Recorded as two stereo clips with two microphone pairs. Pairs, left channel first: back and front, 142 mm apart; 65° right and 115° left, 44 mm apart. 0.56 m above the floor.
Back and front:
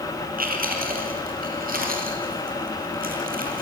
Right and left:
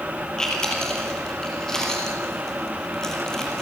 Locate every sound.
0.4 s chewing: 10° left, 4.5 m